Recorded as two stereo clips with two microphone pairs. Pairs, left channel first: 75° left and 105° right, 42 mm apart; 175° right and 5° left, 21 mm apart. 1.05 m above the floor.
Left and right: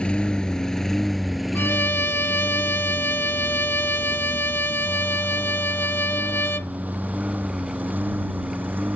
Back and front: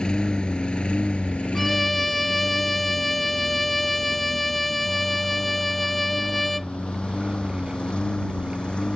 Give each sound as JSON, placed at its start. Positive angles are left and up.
{"t": 0.0, "sound": "a lawn mower", "azimuth_deg": 140}
{"t": 1.6, "sound": "a violin", "azimuth_deg": 100}